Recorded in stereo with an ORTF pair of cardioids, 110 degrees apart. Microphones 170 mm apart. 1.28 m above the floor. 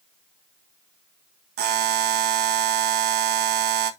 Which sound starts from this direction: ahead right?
A buzzer, at 1.6 s.